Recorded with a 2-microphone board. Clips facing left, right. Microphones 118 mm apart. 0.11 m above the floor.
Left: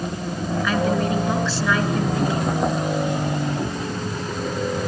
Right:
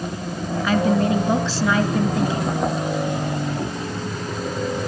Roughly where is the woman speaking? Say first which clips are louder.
Right 3 dB; centre.